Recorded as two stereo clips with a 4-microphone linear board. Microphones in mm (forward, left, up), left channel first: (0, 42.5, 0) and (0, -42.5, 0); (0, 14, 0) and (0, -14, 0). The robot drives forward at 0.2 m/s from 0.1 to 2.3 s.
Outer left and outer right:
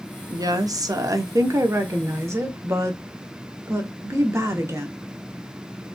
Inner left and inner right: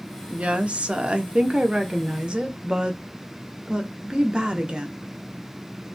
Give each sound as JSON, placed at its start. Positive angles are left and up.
{"t": 0.3, "sound": "a woman speaking", "side_deg": -50, "distance_m": 0.6}